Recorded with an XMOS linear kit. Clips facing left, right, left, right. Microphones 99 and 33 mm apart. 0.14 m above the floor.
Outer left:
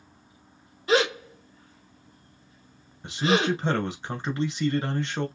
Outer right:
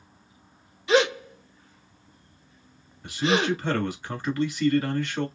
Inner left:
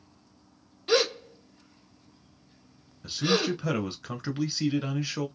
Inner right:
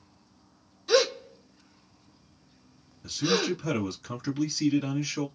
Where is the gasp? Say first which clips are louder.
Outer right 2 dB, inner right 1 dB; 45° left (ahead or behind), 2 m.